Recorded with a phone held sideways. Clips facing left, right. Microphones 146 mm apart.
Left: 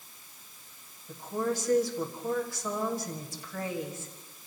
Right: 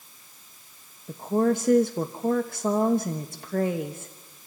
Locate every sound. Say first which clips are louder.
1.1 s a woman speaking: right 8 dB; 65° right (ahead or behind), 1.3 m